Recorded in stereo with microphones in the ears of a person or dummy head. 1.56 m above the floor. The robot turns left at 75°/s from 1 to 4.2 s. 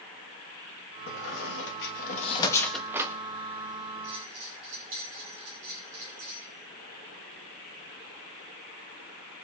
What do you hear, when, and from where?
1.1 s a squeak: 45° left (ahead or behind), 1.4 m; by 3.1 s 20° right (ahead or behind), 1.4 m
4.0 s a bell: 60° right (ahead or behind), 7 m; by 6.5 s 70° right (ahead or behind), 7 m